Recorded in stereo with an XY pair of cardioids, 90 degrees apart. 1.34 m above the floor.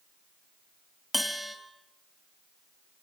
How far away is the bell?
About 3 m.